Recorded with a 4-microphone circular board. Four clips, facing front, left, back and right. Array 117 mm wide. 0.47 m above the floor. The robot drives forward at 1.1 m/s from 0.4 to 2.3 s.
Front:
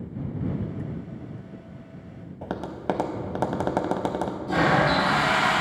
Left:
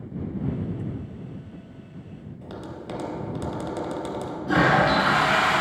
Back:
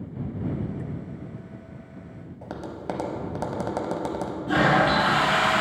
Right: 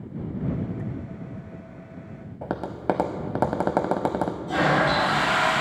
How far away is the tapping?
About 0.6 m.